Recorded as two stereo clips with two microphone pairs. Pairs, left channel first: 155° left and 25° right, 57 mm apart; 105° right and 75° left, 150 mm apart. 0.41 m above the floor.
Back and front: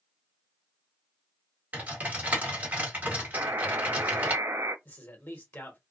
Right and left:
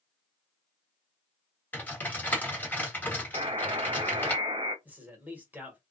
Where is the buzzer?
15° left, 0.5 m.